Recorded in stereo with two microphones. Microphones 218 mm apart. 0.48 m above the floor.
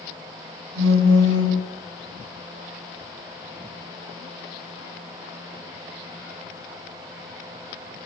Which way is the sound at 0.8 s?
65° right (ahead or behind).